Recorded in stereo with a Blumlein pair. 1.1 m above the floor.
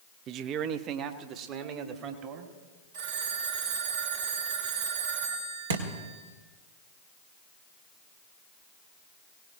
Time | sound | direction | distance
0.3 | a man speaking | 35° right | 0.6 m
2.9 | a phone ringing | 55° right | 2.5 m
5.7 | a thud | 65° right | 1.5 m